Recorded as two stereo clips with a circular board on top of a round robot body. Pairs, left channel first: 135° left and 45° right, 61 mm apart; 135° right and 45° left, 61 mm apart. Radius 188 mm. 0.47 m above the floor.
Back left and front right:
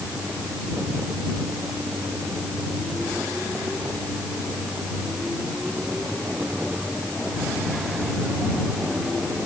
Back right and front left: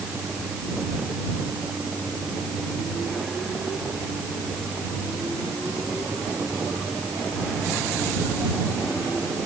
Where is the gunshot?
I don't hear a gunshot.